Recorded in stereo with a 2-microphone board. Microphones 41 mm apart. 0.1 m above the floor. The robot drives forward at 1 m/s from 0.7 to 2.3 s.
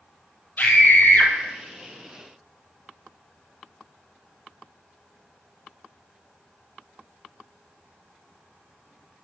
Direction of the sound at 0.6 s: 45° left (ahead or behind).